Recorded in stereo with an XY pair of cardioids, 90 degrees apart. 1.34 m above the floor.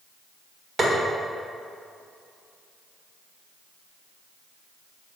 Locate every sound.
0.8 s tapping: 35° right, 1.9 m